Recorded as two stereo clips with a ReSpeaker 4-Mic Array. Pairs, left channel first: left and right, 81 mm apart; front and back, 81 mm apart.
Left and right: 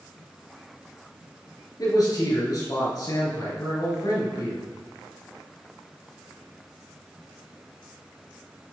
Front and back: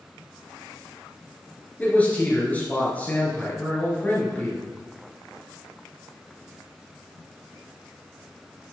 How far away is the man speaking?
About 3 m.